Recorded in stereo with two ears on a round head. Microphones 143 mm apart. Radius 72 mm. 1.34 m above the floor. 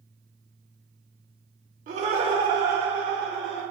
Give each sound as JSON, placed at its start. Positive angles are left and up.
{"t": 1.9, "sound": "laughter", "side_deg": -45, "distance_m": 0.7}